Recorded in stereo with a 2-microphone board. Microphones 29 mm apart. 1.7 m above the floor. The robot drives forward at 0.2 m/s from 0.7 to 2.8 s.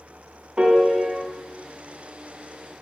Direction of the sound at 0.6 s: 40° right (ahead or behind).